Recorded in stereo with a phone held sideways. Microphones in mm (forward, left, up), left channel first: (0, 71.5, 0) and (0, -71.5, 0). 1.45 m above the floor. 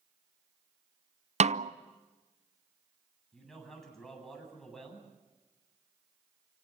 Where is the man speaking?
5° left (ahead or behind), 9 m.